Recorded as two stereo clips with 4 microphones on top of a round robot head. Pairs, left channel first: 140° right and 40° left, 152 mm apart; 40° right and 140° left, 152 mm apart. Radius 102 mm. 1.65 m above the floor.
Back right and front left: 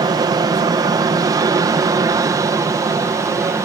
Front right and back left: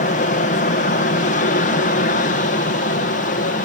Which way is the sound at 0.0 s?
20° right.